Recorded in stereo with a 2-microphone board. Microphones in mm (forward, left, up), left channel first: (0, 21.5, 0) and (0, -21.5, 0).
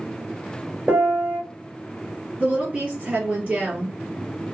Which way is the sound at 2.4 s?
30° right (ahead or behind).